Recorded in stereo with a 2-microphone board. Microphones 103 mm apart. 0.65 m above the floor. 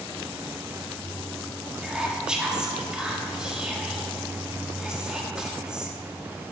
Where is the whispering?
10° right (ahead or behind), 1.5 m.